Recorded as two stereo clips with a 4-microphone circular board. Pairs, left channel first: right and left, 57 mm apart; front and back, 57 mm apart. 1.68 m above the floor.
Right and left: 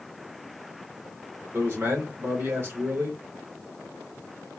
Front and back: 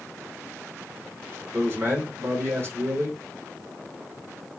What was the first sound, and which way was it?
A man speaking, 135° left.